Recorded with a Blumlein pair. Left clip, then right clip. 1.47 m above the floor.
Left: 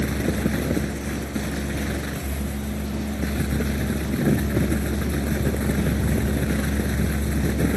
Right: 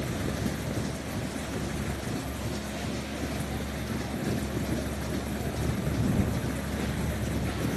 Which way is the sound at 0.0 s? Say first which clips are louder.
Left 7 dB; 30° left.